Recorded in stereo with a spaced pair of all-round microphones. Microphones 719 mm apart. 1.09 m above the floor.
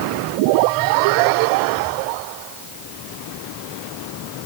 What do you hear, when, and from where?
Only background noise.